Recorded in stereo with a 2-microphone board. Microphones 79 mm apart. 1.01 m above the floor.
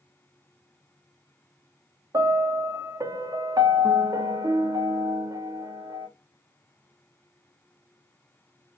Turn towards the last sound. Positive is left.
turn(degrees=-50)  # may be behind; listen again after turning